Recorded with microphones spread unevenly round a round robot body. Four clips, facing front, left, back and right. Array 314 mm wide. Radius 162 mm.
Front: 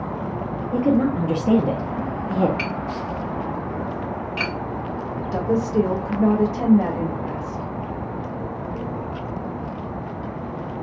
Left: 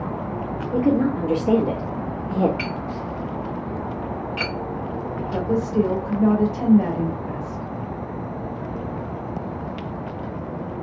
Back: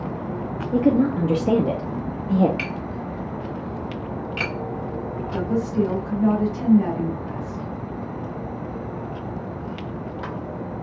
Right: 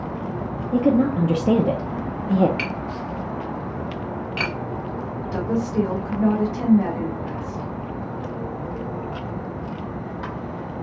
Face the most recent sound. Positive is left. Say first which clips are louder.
# left 1 dB, front 3 dB
turn(degrees=5)